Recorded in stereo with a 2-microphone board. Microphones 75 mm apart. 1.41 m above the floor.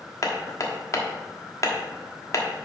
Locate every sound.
0.2 s hammering: 45° left (ahead or behind), 1.1 m